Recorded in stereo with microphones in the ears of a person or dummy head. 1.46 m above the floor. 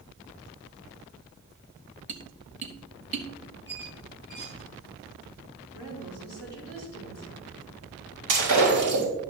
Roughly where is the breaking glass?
Right.